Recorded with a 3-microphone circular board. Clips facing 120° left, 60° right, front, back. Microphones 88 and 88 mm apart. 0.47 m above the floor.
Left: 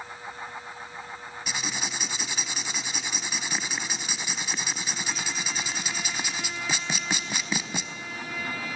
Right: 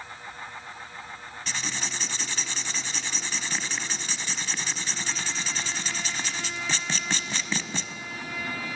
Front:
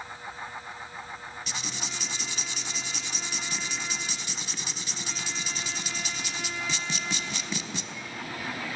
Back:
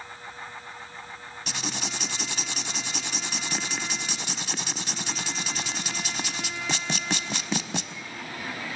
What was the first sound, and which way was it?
Writing, 165° right.